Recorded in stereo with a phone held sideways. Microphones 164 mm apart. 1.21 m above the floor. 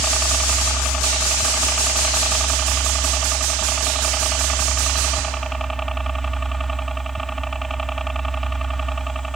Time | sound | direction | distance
0.0 | a helicopter | centre (ahead or behind) | ?